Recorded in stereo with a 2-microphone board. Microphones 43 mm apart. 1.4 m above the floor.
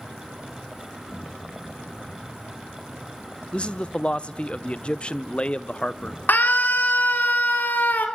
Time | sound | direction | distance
0.0 | an insect | 5° right (ahead or behind) | 4 m
3.5 | a man speaking | 25° left (ahead or behind) | 0.5 m
6.3 | a scream | 45° left (ahead or behind) | 3 m